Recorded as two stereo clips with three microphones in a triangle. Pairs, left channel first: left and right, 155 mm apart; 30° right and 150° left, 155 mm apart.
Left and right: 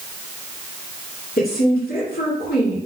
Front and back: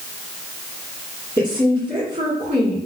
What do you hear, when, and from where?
1.4 s a woman speaking: 95° left, 2 m